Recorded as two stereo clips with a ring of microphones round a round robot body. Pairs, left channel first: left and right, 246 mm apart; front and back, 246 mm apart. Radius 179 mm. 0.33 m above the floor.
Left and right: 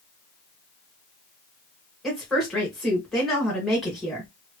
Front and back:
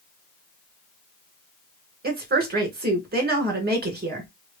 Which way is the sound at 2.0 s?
Straight behind.